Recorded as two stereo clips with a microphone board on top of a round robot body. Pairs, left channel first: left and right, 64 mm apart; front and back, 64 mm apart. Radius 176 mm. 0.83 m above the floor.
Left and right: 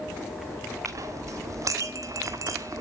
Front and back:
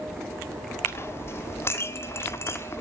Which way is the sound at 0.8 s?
55° right.